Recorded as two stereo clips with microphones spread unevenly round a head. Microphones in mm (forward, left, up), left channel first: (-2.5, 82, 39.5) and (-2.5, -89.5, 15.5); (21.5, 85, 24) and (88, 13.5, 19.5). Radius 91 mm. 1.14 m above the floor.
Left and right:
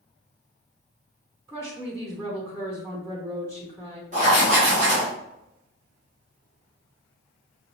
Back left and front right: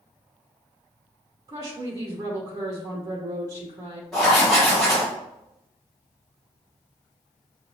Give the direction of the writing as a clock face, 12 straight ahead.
5 o'clock.